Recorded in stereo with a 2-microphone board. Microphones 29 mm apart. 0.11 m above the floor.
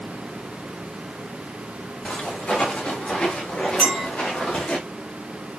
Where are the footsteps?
40° left (ahead or behind), 7 m.